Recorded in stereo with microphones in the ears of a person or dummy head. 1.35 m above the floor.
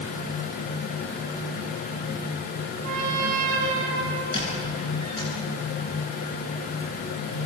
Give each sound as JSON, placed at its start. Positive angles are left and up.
{"t": 2.8, "sound": "a trumpet", "side_deg": -45, "distance_m": 6.0}
{"t": 4.3, "sound": "a squeak", "side_deg": 25, "distance_m": 10.0}